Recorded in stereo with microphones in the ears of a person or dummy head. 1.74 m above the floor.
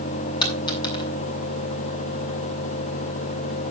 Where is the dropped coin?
25° left (ahead or behind), 6 m.